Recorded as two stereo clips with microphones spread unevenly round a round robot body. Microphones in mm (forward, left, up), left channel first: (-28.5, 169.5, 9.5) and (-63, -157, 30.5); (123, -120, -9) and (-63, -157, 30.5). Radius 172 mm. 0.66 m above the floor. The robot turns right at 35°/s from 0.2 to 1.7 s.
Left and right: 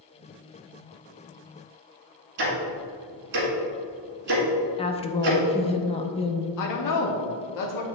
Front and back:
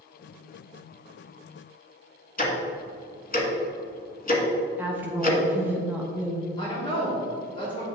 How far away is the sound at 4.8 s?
About 0.5 m.